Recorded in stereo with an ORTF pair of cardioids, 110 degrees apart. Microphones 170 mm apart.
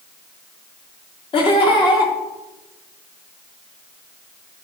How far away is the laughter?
About 1.9 m.